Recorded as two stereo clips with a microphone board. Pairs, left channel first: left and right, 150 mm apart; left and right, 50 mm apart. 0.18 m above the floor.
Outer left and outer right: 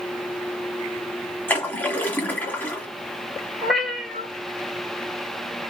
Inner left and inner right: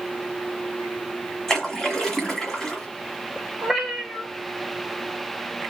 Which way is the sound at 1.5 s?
15° left (ahead or behind).